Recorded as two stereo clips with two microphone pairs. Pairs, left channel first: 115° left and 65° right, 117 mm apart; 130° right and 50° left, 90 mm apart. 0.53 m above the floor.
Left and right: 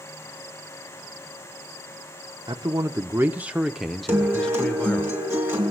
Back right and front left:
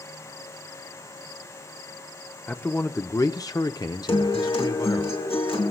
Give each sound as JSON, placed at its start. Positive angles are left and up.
{"t": 2.5, "sound": "a man speaking", "azimuth_deg": -80, "distance_m": 0.8}
{"t": 4.1, "sound": "a guitar", "azimuth_deg": -135, "distance_m": 3.5}